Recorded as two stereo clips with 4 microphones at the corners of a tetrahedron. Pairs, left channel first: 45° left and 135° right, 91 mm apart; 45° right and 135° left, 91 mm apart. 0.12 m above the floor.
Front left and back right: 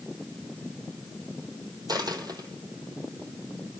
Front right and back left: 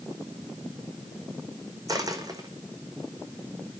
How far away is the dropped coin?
About 2.5 m.